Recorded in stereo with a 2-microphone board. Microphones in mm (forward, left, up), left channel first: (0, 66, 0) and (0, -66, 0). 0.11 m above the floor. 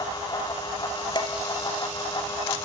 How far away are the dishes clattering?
About 1.3 m.